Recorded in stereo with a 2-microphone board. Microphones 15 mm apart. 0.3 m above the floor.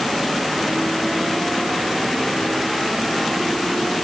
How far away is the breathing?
I don't hear breathing.